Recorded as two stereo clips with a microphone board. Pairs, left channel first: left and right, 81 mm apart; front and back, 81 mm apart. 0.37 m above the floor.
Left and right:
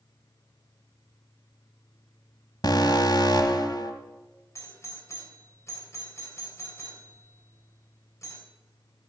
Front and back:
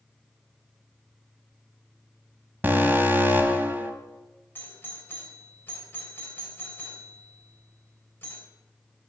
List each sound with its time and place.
2.6 s an alarm: 115° left, 1.5 m
4.5 s a doorbell: 55° left, 3 m